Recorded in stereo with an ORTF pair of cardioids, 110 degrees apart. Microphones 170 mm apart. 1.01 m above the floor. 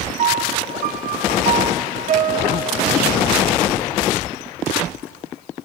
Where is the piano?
50° right, 1.3 m.